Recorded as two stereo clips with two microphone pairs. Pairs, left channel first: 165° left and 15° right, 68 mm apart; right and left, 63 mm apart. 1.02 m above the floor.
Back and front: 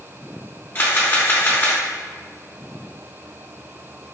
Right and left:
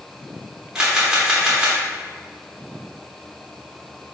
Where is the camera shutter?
150° left, 0.8 m.